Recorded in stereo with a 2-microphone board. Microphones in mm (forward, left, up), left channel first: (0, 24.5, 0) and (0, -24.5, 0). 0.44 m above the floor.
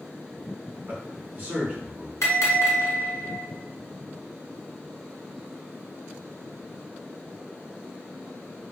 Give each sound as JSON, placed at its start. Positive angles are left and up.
{"t": 0.9, "sound": "a man speaking", "side_deg": -35, "distance_m": 1.0}
{"t": 2.2, "sound": "a bell", "side_deg": 90, "distance_m": 1.1}